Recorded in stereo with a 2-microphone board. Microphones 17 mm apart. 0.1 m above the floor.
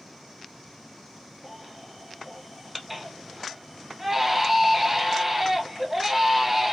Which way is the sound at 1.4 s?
15° right (ahead or behind).